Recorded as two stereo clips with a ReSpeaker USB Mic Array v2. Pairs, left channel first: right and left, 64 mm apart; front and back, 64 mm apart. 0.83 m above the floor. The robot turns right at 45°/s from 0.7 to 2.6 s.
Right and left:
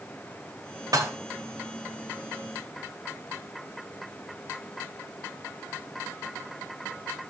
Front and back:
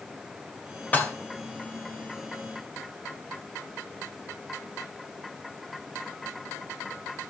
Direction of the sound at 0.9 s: 65° left.